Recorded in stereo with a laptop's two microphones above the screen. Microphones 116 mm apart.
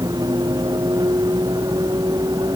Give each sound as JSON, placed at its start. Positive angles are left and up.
{"t": 0.0, "sound": "a vehicle", "side_deg": -35}